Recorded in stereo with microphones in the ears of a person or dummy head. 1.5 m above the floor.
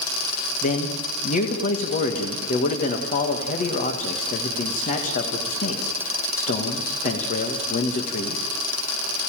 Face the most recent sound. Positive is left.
turn(degrees=40)  # may be behind; listen again after turning